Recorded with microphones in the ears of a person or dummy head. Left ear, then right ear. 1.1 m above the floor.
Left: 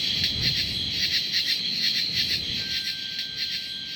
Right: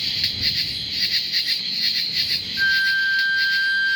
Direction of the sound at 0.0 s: 15° right (ahead or behind).